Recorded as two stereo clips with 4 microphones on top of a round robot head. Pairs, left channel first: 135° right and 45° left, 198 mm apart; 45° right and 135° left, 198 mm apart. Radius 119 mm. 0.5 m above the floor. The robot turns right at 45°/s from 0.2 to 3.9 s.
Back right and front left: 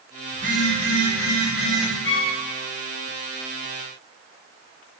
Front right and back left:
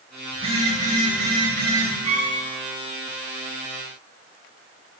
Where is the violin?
165° right, 1.6 m; by 2.4 s 150° right, 1.6 m.